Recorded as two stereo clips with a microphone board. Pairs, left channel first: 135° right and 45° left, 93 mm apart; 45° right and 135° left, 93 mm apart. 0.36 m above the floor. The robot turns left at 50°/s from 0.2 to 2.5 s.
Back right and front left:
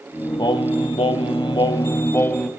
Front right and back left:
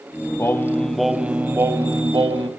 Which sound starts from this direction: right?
Singing, at 0.4 s.